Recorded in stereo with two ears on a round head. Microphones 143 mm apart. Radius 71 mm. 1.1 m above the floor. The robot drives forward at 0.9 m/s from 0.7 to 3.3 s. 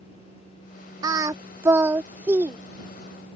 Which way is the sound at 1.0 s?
25° right (ahead or behind).